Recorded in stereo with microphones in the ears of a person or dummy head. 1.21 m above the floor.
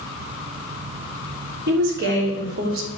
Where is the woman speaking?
50° right (ahead or behind), 3 m; by 2.9 s 65° right (ahead or behind), 2.5 m.